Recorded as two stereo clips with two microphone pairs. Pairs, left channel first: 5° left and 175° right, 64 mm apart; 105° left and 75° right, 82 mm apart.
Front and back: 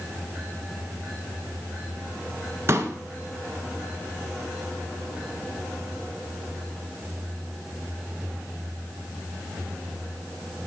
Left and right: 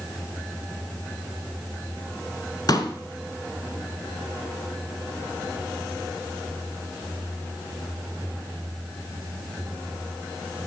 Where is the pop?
140° left, 1.2 m.